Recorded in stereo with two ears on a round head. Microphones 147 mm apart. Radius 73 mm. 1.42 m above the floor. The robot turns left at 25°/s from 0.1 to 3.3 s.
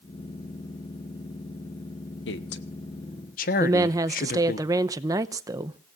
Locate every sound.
2.3 s a man speaking: 75° left (ahead or behind), 1.2 m; by 4.6 s 55° left (ahead or behind), 1.2 m
3.6 s a woman speaking: 20° right (ahead or behind), 0.7 m